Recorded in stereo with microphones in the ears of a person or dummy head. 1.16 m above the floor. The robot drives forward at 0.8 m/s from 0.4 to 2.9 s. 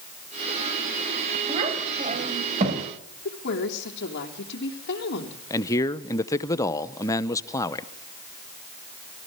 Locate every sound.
1.5 s a child speaking: 30° right (ahead or behind), 5.5 m; by 2.9 s 35° right (ahead or behind), 4.5 m
3.2 s a woman speaking: 65° left (ahead or behind), 3 m
5.5 s a man speaking: 15° left (ahead or behind), 0.7 m